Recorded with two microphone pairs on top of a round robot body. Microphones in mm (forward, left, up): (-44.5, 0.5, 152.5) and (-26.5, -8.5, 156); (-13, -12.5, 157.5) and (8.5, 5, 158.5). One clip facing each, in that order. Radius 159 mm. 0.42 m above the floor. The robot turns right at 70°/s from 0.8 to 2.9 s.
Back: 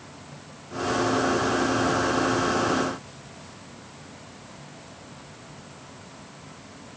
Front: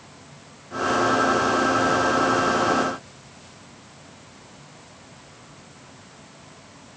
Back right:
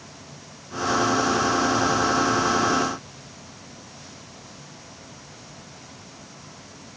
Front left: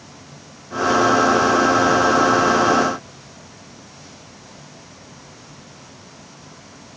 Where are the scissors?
No scissors in this recording.